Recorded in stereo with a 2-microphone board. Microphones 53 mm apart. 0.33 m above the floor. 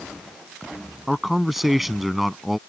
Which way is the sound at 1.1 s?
5° right (ahead or behind).